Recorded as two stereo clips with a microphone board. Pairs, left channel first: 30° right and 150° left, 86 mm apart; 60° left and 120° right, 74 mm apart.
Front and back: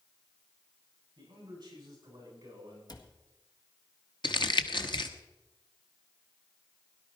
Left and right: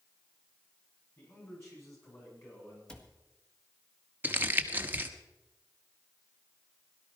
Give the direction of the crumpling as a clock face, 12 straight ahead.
2 o'clock.